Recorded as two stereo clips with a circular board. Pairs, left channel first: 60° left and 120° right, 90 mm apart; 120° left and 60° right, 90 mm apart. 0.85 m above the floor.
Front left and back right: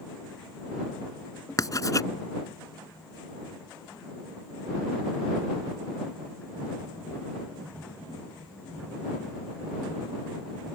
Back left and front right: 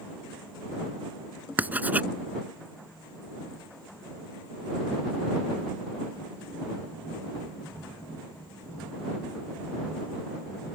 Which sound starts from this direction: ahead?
Writing, at 1.6 s.